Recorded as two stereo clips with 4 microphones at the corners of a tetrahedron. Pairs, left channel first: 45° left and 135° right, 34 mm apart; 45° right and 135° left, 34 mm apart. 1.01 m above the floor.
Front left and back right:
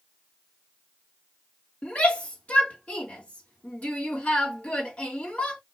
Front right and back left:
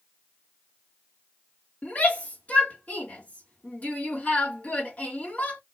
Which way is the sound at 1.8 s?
5° right.